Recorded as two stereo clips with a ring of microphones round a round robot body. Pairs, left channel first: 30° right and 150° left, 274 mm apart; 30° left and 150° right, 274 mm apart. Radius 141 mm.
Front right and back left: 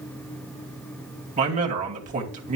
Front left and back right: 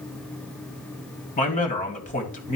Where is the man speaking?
90° left, 2.5 m.